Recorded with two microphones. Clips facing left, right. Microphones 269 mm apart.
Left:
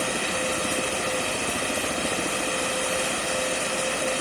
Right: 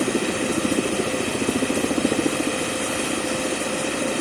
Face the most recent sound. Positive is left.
turn(degrees=-70)  # may be behind; listen again after turning